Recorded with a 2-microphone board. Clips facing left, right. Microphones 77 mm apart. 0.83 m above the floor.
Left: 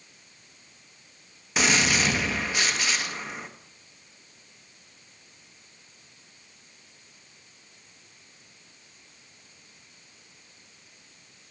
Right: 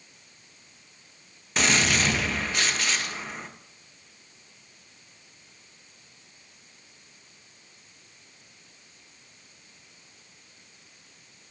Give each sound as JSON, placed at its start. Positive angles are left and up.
{"t": 1.6, "sound": "a gunshot", "side_deg": 5, "distance_m": 0.7}